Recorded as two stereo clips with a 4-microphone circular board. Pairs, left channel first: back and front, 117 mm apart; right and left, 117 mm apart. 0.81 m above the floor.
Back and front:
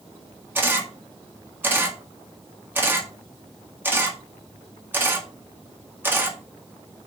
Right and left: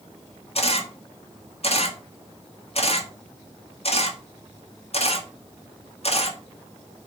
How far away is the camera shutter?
About 1.6 m.